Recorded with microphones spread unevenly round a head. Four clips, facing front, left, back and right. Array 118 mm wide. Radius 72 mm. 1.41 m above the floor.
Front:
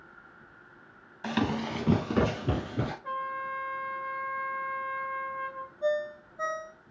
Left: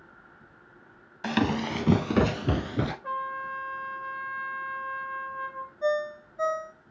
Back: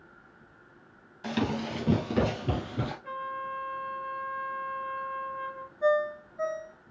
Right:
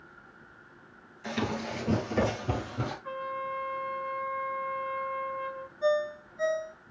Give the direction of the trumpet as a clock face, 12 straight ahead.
8 o'clock.